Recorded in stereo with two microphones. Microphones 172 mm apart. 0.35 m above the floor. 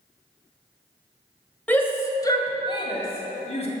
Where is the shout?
10° left (ahead or behind), 1.7 m; by 3.7 s 40° left (ahead or behind), 2.5 m.